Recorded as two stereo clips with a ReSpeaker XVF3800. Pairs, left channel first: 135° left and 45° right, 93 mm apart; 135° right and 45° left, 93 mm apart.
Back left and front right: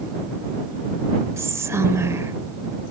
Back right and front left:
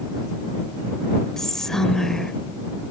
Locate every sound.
1.4 s whispering: 55° right